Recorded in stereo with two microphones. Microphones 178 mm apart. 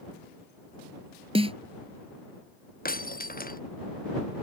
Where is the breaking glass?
55° left (ahead or behind).